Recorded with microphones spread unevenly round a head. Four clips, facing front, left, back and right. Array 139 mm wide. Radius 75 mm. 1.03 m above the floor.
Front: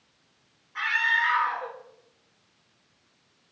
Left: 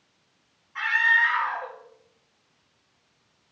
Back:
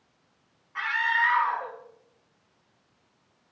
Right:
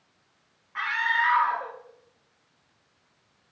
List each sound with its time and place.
0.8 s a scream: 105° right, 3 m